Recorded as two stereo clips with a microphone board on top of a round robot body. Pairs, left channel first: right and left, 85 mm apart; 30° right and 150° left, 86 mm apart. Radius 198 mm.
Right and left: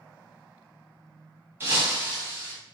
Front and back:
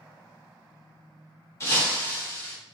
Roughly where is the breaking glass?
Ahead left.